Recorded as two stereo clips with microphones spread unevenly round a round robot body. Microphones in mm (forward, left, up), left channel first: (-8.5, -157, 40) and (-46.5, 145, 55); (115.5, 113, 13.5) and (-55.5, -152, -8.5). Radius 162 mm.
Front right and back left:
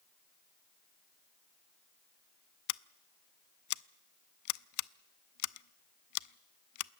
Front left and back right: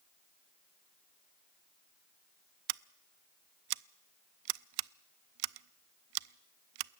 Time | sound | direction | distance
2.7 | scissors | 115° right | 0.5 m